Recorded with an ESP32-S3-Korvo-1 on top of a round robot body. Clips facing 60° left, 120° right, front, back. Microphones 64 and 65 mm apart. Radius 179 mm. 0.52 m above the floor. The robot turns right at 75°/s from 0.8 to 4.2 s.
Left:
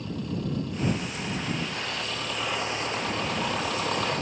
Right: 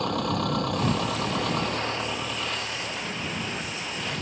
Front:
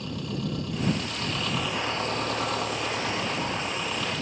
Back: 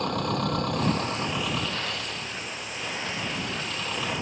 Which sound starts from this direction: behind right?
An engine running, at 0.0 s.